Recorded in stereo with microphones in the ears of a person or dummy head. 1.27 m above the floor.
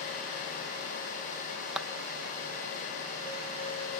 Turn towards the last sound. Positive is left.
turn(degrees=-5)  # may be behind; listen again after turning